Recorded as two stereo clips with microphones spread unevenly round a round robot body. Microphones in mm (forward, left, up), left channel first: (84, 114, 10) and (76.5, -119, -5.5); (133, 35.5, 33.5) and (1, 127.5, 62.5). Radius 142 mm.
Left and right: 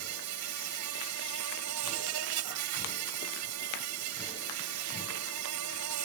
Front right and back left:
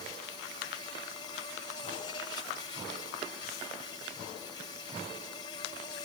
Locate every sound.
0.0 s an insect: 110° right